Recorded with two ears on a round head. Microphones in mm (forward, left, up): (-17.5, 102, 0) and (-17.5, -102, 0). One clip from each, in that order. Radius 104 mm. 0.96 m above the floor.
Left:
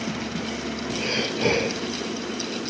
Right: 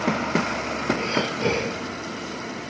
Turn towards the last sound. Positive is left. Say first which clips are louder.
# even
turn(degrees=15)  # may be behind; listen again after turning